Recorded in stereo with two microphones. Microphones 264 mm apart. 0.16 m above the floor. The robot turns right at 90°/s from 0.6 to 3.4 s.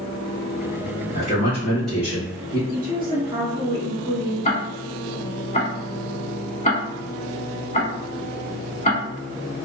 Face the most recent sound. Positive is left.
turn(degrees=25)  # may be behind; listen again after turning